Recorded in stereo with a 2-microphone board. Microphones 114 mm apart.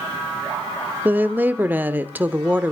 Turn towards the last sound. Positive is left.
turn(degrees=-15)  # may be behind; listen again after turning